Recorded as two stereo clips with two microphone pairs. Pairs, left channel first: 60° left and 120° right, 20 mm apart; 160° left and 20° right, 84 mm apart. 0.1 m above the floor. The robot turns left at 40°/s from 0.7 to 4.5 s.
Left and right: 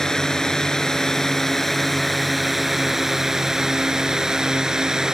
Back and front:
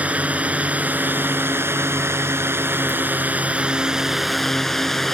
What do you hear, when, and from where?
0.0 s a drone: 35° left; by 5.1 s 115° right